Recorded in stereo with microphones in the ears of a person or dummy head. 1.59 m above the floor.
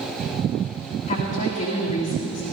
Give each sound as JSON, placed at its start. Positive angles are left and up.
{"t": 1.1, "sound": "a woman speaking", "side_deg": 40, "distance_m": 2.0}